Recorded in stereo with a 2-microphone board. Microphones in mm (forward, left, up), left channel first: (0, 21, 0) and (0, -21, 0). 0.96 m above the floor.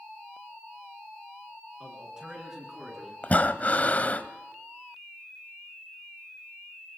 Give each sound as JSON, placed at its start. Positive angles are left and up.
{"t": 1.8, "sound": "a man speaking", "side_deg": -20, "distance_m": 10.0}
{"t": 3.2, "sound": "breathing", "side_deg": 40, "distance_m": 1.1}